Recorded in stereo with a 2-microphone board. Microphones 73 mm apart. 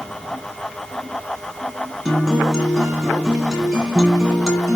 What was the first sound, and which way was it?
A guitar, 5° right (ahead or behind).